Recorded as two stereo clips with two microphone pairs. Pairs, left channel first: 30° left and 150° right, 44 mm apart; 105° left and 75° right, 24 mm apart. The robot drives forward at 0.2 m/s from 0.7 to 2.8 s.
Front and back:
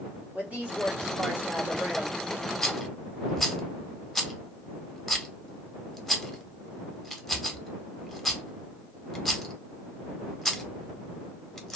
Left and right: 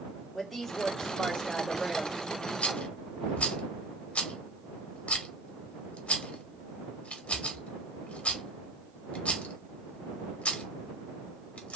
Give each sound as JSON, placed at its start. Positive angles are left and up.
{"t": 0.3, "sound": "a woman speaking", "azimuth_deg": -175, "distance_m": 1.6}
{"t": 2.6, "sound": "a rattle", "azimuth_deg": 110, "distance_m": 0.5}